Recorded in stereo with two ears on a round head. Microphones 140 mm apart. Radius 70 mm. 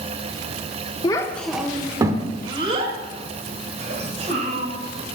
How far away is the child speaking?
About 0.6 m.